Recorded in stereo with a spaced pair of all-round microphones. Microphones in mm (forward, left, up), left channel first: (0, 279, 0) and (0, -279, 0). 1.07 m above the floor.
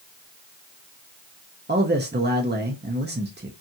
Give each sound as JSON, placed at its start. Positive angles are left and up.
{"t": 1.7, "sound": "a man speaking", "side_deg": -20, "distance_m": 0.6}